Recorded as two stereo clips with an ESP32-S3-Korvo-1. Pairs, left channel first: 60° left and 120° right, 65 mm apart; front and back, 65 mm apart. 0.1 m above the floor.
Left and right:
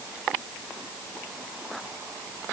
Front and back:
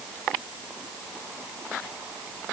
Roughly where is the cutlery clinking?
I don't hear cutlery clinking.